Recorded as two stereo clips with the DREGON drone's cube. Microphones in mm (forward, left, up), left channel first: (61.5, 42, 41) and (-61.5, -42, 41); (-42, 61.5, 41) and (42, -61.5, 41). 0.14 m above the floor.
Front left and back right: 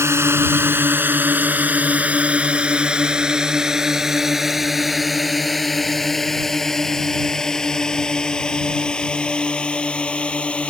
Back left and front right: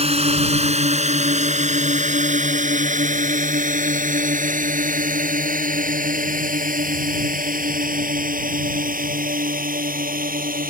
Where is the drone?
80° right; by 10.7 s 45° right.